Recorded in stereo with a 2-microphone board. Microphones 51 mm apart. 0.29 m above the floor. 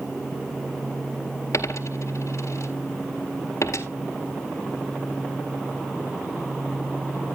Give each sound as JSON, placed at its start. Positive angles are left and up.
{"t": 1.5, "sound": "a dropped coin", "side_deg": 75, "distance_m": 1.6}